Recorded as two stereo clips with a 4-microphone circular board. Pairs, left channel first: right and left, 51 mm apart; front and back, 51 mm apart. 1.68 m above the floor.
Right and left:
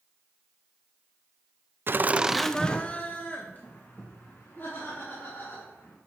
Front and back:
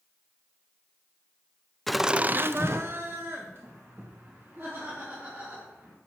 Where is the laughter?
85° left, 0.6 m; by 5.9 s 135° right, 4.5 m.